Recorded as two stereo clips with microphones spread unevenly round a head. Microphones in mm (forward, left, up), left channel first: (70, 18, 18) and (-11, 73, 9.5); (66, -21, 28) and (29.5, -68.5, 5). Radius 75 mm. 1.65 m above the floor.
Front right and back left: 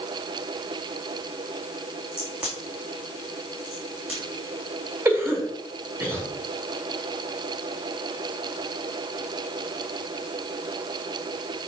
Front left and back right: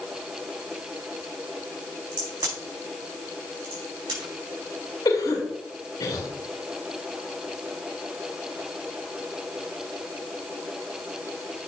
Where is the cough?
85° left, 2 m.